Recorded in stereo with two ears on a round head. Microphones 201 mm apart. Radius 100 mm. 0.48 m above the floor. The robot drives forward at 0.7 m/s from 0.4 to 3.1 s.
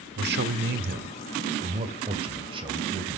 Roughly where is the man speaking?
Right.